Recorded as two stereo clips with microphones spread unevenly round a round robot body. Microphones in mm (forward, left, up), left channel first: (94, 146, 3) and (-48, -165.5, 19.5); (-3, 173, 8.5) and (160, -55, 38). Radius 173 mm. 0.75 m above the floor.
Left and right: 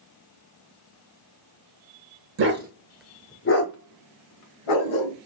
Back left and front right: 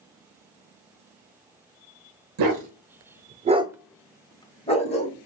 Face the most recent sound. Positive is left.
turn(degrees=60)